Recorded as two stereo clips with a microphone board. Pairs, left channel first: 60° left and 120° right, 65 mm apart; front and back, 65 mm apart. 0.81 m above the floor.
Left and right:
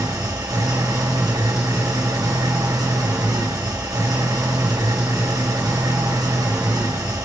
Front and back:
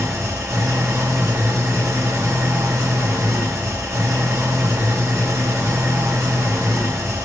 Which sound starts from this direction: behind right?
An engine running, at 0.0 s.